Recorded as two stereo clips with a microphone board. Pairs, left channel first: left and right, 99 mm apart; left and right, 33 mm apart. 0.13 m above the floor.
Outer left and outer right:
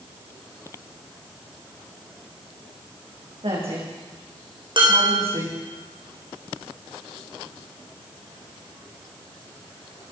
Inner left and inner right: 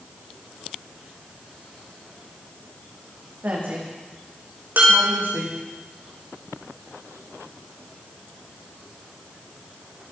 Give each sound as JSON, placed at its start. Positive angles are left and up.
{"t": 3.4, "sound": "a woman speaking", "side_deg": -80, "distance_m": 7.5}
{"t": 4.8, "sound": "dishes clattering", "side_deg": -60, "distance_m": 4.5}